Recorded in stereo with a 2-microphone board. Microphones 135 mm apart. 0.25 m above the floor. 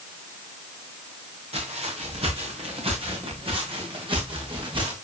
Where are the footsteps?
55° right (ahead or behind), 7.5 m; by 4.9 s 40° right (ahead or behind), 6.5 m.